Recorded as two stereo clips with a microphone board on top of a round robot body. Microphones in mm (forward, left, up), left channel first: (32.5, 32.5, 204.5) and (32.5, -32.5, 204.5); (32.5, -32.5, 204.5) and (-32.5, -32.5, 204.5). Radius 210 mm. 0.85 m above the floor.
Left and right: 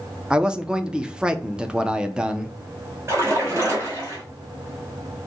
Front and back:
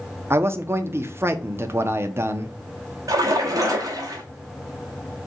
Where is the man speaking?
160° right, 0.7 m.